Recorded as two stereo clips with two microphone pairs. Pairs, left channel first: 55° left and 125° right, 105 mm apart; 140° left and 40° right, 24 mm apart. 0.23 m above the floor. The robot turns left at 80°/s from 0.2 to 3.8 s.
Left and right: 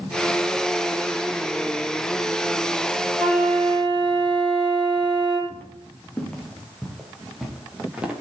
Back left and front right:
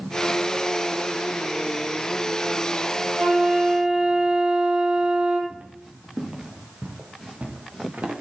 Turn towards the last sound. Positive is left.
turn(degrees=-45)